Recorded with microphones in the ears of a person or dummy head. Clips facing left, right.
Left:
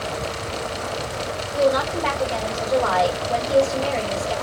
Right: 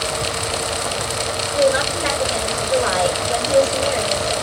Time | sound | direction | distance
1.6 | a woman speaking | 20° right (ahead or behind) | 1.8 m